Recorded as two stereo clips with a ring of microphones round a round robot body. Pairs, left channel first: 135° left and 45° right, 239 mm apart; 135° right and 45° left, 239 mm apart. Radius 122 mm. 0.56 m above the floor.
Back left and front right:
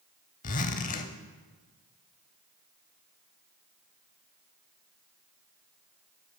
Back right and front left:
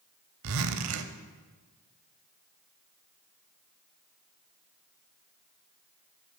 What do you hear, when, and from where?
0.4 s a zipper: 75° left, 0.6 m